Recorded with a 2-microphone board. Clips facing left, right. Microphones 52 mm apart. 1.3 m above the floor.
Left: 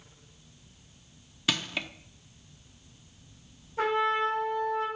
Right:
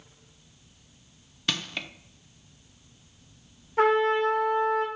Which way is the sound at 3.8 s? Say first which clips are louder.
Right 5 dB; 65° right (ahead or behind).